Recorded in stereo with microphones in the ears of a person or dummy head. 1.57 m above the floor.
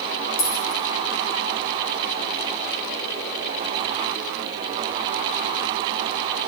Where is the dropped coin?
80° left, 5 m.